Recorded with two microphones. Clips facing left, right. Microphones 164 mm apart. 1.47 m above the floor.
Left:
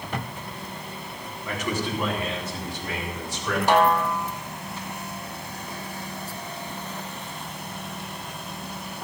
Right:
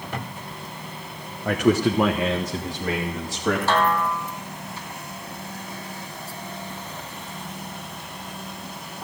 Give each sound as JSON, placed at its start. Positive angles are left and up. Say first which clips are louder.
{"t": 1.4, "sound": "a man speaking", "louder": "right 10 dB", "side_deg": -50, "distance_m": 1.0}
{"t": 3.7, "sound": "a snare drum", "louder": "left 7 dB", "side_deg": 15, "distance_m": 1.3}